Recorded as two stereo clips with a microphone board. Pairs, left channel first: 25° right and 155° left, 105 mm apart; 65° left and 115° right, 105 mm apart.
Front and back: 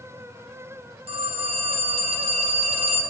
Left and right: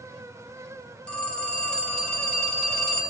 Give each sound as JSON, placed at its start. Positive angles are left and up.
{"t": 1.1, "sound": "a phone ringing", "azimuth_deg": 150, "distance_m": 1.0}